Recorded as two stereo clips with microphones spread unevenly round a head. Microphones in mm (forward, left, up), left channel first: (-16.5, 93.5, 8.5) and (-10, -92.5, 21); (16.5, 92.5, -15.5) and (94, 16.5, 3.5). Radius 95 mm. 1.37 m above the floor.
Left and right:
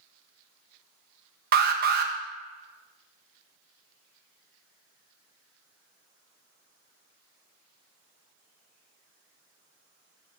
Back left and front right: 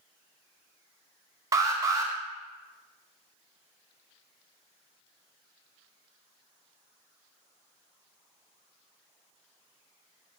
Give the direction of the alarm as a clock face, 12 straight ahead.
3 o'clock.